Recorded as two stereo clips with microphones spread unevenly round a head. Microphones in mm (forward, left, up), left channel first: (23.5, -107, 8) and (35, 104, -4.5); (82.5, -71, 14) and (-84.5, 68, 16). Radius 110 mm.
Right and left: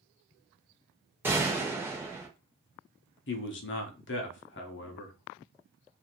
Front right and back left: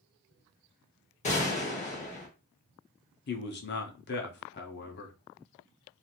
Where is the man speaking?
70° right, 0.7 m.